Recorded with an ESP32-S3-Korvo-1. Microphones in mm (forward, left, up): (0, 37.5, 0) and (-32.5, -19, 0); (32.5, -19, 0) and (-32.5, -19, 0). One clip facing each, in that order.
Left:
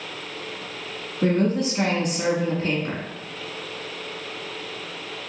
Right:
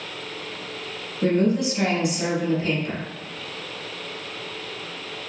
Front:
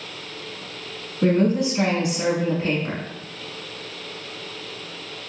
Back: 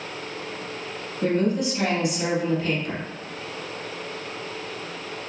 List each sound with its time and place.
1.2 s a woman speaking: 45° left, 1.6 m